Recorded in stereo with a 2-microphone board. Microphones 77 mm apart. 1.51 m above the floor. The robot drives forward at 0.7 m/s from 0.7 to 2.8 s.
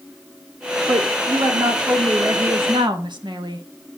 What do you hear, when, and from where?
0.9 s a woman speaking: 60° right (ahead or behind), 2 m; by 3.6 s 80° right, 1.9 m